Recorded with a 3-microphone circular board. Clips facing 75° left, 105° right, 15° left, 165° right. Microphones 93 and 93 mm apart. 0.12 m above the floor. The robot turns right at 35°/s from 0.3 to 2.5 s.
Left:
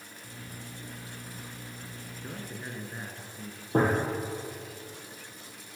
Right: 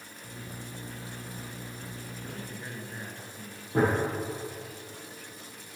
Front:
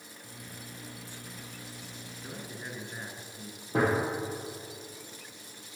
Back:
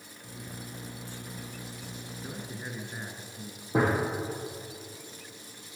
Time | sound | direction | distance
2.2 | a man speaking | 125° left | 1.4 m
3.7 | a gunshot | 115° left | 3.5 m